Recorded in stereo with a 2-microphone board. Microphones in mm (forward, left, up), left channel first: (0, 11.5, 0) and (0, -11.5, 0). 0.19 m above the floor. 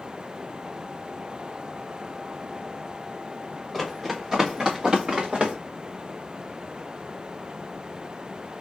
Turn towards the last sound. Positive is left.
turn(degrees=-65)  # may be behind; listen again after turning